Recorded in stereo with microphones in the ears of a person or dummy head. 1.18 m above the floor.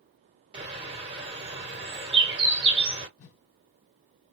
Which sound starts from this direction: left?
A whoosh, at 3.2 s.